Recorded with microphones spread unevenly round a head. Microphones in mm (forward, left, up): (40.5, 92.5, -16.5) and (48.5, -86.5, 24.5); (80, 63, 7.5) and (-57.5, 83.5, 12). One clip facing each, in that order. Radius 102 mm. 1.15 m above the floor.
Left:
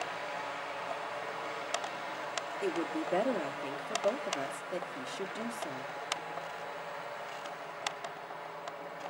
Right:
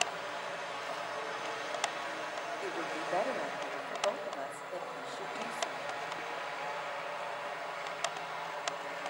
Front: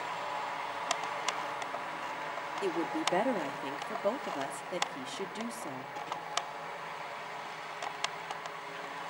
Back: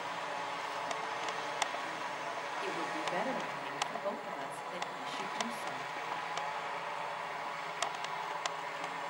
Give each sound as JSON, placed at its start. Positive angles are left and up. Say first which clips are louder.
{"t": 2.6, "sound": "a woman speaking", "louder": "left 8 dB, front 7 dB", "azimuth_deg": 35, "distance_m": 2.0}